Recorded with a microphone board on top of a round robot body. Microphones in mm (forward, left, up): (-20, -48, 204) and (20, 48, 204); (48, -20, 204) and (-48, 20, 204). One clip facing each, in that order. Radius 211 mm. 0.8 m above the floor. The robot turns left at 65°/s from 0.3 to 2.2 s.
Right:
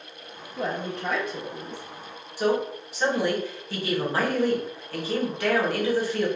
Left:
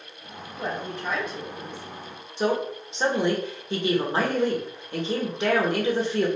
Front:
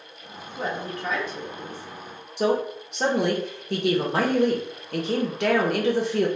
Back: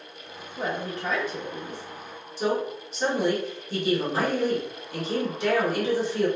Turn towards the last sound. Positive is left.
turn(degrees=0)